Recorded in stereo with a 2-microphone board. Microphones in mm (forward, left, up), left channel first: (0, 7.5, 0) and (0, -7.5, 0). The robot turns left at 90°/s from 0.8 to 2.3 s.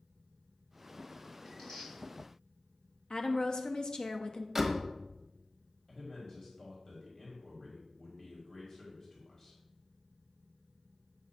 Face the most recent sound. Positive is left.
turn(degrees=40)  # may be behind; listen again after turning